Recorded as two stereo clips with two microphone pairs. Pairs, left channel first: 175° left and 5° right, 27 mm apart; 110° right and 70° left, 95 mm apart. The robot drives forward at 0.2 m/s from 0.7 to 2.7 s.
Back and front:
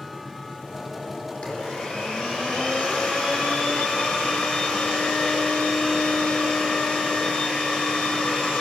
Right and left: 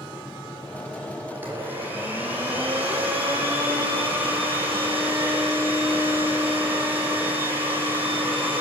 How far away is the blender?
About 7.5 m.